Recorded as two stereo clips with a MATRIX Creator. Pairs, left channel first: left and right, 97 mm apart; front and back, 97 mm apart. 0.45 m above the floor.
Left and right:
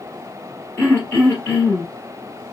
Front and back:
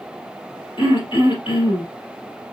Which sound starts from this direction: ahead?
Throat clearing, at 0.8 s.